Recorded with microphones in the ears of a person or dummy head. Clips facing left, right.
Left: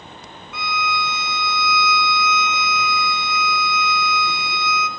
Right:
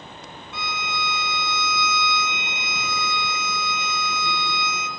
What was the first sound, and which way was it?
A violin, 25° right (ahead or behind).